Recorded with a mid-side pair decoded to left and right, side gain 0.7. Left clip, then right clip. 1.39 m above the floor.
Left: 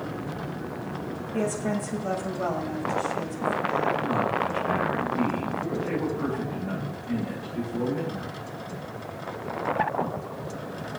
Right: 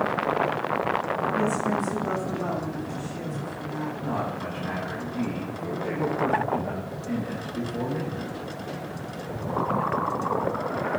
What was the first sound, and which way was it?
A woman speaking, 25° left.